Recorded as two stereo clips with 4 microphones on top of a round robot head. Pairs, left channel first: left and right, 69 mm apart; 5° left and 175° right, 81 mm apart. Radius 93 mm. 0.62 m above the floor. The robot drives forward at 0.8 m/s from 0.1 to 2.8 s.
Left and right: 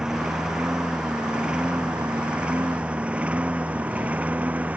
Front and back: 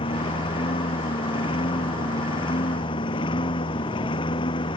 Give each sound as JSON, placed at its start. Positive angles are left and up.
{"t": 0.0, "sound": "a lawn mower", "azimuth_deg": -10}